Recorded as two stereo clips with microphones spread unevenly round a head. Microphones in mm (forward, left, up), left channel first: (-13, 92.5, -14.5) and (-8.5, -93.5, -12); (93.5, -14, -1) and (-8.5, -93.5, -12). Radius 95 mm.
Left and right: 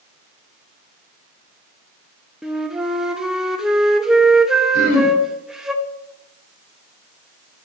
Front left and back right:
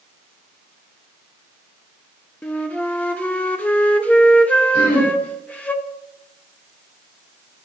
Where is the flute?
5° right, 0.9 m.